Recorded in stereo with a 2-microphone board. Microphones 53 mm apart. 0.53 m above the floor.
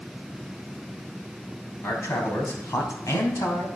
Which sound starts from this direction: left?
A man speaking, at 1.8 s.